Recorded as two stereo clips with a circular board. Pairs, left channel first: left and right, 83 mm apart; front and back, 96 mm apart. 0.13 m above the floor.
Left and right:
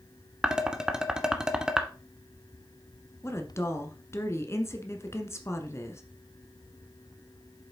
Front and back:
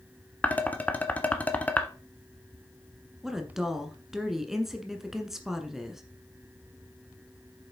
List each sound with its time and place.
0.4 s dishes clattering: 25° right, 1.0 m
3.2 s a woman speaking: 95° left, 1.3 m